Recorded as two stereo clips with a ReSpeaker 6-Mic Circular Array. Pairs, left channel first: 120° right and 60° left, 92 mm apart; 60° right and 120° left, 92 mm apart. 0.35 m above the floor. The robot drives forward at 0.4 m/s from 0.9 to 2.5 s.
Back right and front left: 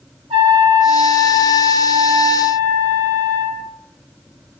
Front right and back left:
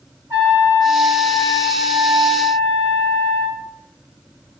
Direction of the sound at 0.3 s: 60° left.